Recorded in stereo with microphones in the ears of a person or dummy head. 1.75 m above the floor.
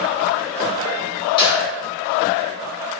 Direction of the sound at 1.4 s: 25° left (ahead or behind).